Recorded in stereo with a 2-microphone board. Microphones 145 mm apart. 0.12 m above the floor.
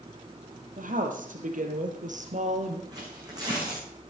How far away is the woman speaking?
About 3 m.